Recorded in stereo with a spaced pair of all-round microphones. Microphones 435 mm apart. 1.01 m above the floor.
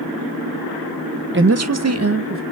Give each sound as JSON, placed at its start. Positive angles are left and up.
{"t": 1.3, "sound": "a woman speaking", "side_deg": -30, "distance_m": 0.5}